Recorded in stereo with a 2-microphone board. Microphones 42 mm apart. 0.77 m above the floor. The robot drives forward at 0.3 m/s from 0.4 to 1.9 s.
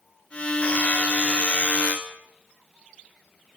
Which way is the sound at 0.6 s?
30° left (ahead or behind).